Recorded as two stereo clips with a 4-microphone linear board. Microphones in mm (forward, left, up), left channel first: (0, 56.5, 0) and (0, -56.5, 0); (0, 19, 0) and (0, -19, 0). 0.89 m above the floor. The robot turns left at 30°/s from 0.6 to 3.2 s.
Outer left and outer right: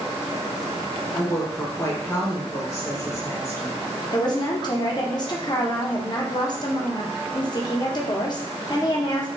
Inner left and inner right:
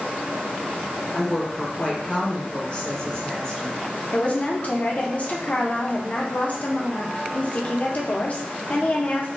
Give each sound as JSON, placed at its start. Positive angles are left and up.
{"t": 1.1, "sound": "a woman speaking", "side_deg": 20, "distance_m": 0.9}
{"t": 4.1, "sound": "a woman speaking", "side_deg": 40, "distance_m": 0.5}